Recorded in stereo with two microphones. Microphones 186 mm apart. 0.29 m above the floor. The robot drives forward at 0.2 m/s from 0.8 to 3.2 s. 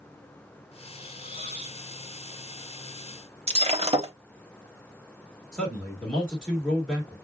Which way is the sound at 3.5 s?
35° right (ahead or behind).